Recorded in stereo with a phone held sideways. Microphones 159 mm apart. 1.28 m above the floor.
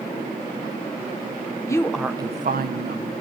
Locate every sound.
1.7 s a woman speaking: 20° left (ahead or behind), 1.0 m; by 3.1 s 80° right, 1.3 m